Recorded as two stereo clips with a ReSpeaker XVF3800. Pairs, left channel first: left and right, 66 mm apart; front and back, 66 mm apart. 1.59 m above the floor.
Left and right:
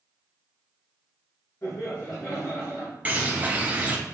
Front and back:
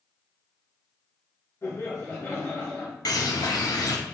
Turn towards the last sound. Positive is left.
turn(degrees=-25)